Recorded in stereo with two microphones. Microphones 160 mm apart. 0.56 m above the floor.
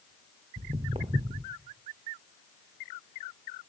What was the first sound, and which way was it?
Footsteps, 35° right (ahead or behind).